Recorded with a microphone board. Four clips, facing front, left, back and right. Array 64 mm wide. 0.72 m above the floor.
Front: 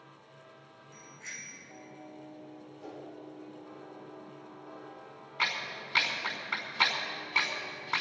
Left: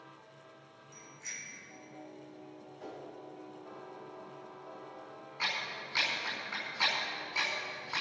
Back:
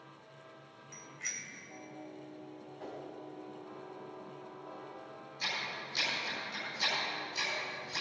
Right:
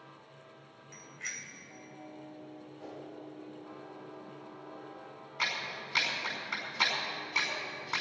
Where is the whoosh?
170° left, 4 m.